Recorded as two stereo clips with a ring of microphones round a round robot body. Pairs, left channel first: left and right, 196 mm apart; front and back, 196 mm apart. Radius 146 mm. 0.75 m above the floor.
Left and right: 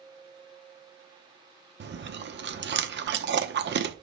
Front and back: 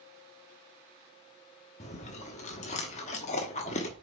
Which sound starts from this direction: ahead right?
Chewing, at 1.8 s.